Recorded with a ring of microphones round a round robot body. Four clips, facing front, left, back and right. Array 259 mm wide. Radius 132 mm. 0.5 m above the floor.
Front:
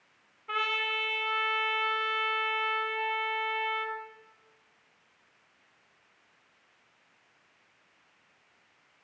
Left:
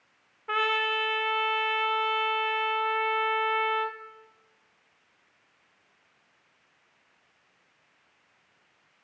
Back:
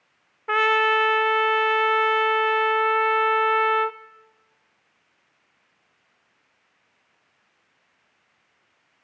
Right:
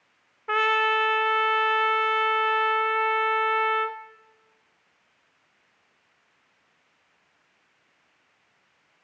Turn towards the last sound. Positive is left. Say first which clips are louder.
# right 5 dB, back 13 dB
turn(degrees=-160)